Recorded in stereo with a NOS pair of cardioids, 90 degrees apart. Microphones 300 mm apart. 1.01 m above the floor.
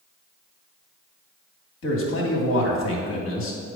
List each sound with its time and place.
1.8 s a man speaking: 45° left, 2.5 m